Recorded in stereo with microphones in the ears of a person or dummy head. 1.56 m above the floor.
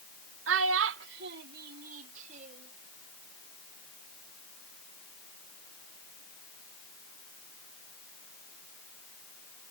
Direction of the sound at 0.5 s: 75° right (ahead or behind).